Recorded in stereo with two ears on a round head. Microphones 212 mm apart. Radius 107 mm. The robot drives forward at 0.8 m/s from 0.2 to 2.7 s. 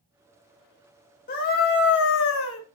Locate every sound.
1.3 s a scream: 35° left (ahead or behind), 2 m; by 2.6 s 60° left (ahead or behind), 1.5 m